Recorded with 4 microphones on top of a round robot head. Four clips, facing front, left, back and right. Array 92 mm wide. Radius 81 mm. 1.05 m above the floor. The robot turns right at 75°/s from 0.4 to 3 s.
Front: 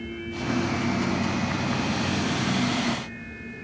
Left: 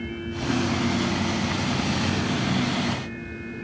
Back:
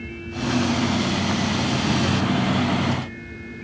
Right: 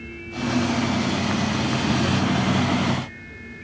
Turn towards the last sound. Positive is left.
No sound to turn to.